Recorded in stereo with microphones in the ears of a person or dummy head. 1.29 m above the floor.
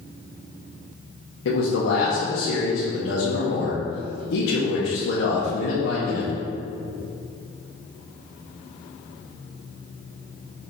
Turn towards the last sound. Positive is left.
turn(degrees=80)